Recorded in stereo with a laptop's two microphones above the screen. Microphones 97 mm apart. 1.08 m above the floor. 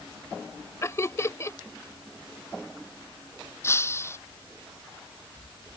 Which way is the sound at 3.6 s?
25° left (ahead or behind).